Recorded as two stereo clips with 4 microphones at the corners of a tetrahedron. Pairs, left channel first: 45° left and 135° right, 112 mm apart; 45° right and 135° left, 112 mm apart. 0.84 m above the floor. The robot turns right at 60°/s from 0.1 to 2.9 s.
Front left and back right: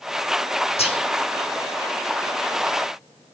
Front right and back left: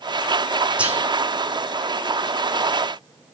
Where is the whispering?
55° left, 2 m; by 1.0 s 70° left, 2 m.